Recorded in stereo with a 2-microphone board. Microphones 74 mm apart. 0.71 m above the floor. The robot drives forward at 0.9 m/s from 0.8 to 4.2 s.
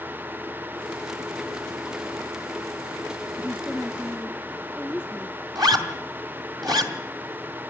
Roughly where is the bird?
No bird in this recording.